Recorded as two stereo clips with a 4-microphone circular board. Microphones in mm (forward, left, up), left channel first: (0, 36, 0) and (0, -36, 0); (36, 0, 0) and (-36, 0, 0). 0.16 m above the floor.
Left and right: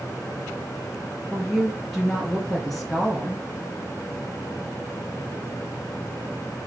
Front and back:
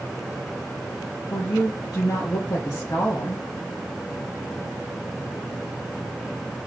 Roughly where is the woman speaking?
Ahead.